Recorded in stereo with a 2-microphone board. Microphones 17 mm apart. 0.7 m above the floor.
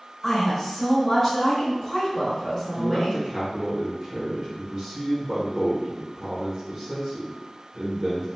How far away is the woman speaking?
About 1.4 m.